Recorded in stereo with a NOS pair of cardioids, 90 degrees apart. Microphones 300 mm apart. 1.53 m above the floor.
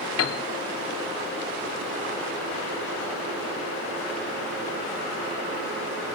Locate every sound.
0.2 s a piano: 50° left, 1.0 m